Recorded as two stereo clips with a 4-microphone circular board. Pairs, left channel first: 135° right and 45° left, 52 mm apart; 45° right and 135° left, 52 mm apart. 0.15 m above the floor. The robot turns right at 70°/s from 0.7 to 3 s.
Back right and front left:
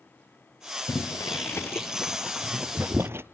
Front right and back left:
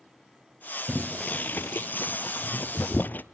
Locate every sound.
0.9 s boiling: 145° right, 0.8 m; by 3.2 s 5° left, 0.8 m